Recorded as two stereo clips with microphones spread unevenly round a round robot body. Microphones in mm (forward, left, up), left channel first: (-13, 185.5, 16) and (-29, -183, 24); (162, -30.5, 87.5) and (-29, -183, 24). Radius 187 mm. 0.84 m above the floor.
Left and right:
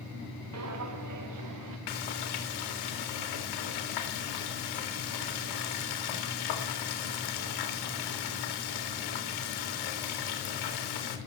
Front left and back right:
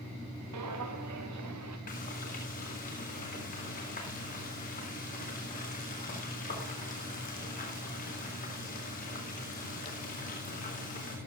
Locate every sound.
0.5 s footsteps: 140° right, 4 m; by 1.8 s 125° right, 3.5 m
1.9 s frying: 110° left, 4 m